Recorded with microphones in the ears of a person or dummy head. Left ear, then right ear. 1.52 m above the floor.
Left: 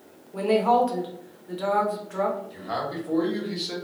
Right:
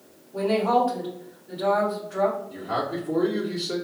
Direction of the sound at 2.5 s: 65° left (ahead or behind).